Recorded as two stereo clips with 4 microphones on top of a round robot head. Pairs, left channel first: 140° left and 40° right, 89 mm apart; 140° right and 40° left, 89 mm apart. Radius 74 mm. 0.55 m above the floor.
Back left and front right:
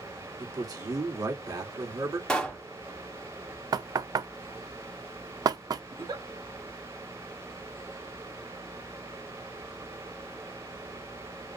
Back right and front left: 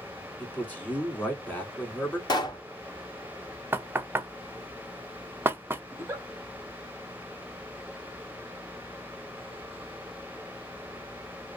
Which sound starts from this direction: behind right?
A pop, at 2.3 s.